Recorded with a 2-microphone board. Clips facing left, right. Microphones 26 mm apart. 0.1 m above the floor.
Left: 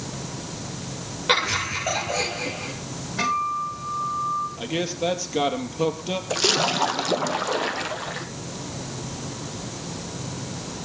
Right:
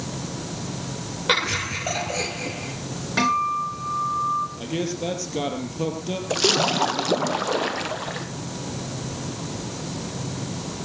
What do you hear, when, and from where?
1.3 s laughter: 5° right (ahead or behind), 1.5 m; by 2.7 s 10° left (ahead or behind), 2 m
3.2 s a guitar: 85° right, 10 m
4.6 s a man speaking: 20° left (ahead or behind), 3 m
6.3 s a splash: centre (ahead or behind), 0.8 m